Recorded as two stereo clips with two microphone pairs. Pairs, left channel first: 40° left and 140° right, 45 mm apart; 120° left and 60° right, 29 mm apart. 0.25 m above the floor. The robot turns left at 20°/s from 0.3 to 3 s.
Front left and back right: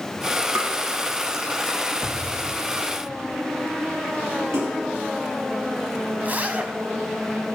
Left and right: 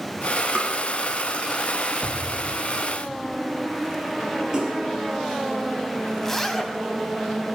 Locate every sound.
0.6 s tapping: 120° right, 2.5 m
2.0 s an explosion: 155° right, 0.7 m; by 3.4 s 175° right, 0.7 m
4.5 s a splash: 125° right, 4.5 m
6.2 s a zipper: 170° right, 1.1 m